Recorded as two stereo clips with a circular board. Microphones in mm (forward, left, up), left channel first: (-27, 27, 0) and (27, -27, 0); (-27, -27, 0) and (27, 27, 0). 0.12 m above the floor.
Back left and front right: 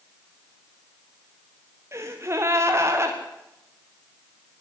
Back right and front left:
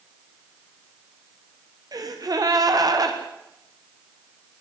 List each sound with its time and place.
1.9 s a gasp: 10° left, 4.5 m